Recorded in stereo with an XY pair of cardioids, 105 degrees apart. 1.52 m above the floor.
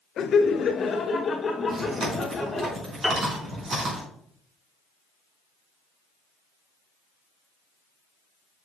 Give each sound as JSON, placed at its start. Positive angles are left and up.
{"t": 0.2, "sound": "laughter", "azimuth_deg": 60, "distance_m": 0.6}
{"t": 1.7, "sound": "chewing", "azimuth_deg": -45, "distance_m": 4.5}
{"t": 3.0, "sound": "a piano", "azimuth_deg": -5, "distance_m": 3.0}